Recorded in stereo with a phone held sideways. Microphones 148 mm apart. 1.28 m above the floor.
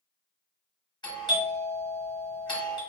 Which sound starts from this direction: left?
A doorbell, at 1.0 s.